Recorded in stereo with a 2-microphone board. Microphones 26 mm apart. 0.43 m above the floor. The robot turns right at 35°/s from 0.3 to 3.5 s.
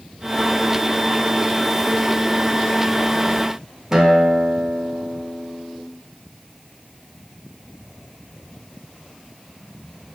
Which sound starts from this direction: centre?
A guitar, at 3.9 s.